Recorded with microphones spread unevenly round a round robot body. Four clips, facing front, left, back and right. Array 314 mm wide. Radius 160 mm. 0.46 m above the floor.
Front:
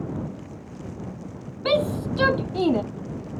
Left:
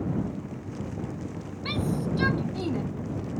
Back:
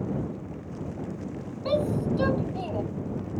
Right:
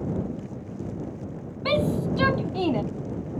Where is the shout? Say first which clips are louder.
Right 6 dB, front 3 dB; 30° right; by 2.8 s 25° right.